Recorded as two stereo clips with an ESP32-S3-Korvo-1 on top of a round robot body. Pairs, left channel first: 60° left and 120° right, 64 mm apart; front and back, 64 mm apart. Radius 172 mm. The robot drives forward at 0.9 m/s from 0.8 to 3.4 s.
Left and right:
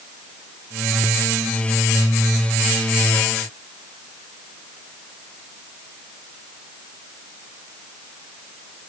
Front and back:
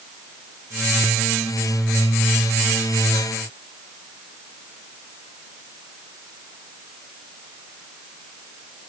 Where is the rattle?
No rattle in this recording.